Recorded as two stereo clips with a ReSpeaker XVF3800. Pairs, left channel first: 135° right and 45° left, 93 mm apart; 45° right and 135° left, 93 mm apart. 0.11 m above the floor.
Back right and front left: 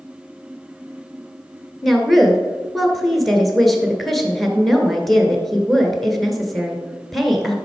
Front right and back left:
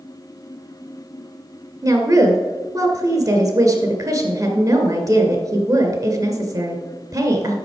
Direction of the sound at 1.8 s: 135° left.